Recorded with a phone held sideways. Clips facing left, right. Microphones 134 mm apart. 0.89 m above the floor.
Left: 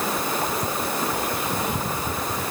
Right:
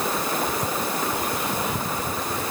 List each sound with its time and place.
Only background noise.